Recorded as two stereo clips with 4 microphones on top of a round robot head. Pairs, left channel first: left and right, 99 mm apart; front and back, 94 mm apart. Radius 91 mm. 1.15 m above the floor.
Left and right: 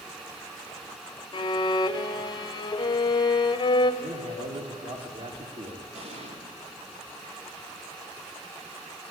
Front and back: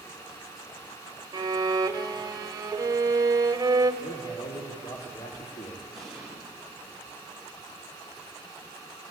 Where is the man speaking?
60° right, 1.7 m.